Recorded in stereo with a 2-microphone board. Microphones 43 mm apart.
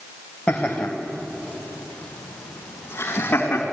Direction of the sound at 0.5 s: 25° left (ahead or behind).